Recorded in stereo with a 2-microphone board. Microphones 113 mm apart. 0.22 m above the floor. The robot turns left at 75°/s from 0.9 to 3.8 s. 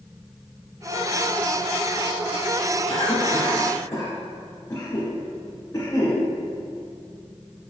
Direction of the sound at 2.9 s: 60° left (ahead or behind).